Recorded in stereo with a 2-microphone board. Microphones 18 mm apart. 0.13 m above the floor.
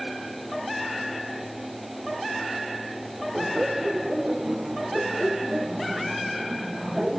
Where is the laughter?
20° right (ahead or behind).